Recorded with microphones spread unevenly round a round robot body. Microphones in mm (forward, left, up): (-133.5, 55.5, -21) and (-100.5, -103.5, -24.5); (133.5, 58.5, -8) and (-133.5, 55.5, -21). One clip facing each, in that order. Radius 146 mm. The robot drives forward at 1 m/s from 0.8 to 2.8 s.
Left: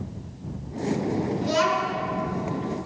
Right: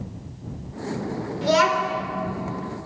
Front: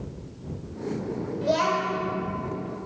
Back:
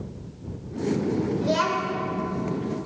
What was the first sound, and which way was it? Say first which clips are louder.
A child speaking: right 7 dB, back 1 dB; 95° right.